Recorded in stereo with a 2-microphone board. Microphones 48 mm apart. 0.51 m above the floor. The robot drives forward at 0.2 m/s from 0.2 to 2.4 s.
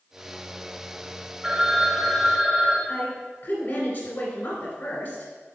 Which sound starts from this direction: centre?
A phone ringing, at 1.4 s.